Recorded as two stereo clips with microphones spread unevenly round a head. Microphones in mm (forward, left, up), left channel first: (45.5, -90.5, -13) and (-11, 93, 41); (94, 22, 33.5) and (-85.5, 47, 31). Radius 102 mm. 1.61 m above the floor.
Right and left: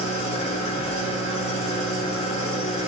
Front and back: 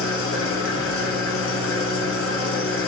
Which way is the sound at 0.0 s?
5° right.